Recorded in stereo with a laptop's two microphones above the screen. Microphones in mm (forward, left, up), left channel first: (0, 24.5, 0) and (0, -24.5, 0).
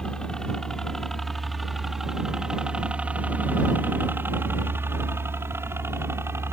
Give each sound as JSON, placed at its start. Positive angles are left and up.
{"t": 0.0, "sound": "a helicopter", "side_deg": 15}